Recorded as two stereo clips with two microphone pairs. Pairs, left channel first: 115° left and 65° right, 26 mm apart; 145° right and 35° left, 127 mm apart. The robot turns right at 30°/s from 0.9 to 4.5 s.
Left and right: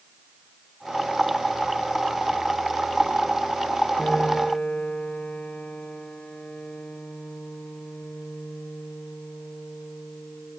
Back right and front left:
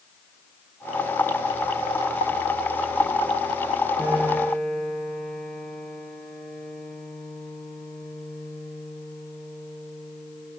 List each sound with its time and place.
4.0 s a piano: 120° left, 9.5 m; by 10.6 s 135° left, 9.5 m